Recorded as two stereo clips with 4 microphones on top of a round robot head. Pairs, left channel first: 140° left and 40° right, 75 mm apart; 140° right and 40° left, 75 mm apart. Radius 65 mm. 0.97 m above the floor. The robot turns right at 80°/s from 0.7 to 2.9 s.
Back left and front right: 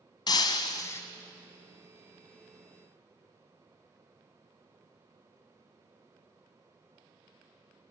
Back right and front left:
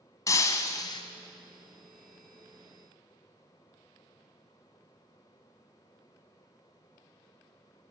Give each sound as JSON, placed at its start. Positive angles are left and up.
{"t": 0.3, "sound": "breaking glass", "azimuth_deg": 175, "distance_m": 1.1}